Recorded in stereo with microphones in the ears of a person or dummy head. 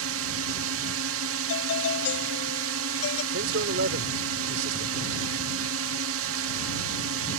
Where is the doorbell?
85° left.